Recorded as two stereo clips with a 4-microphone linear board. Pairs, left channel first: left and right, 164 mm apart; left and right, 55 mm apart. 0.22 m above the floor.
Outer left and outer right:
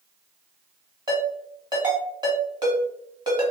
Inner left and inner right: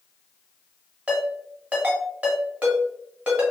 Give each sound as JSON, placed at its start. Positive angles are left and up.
{"t": 1.1, "sound": "a ringtone", "side_deg": -25, "distance_m": 1.4}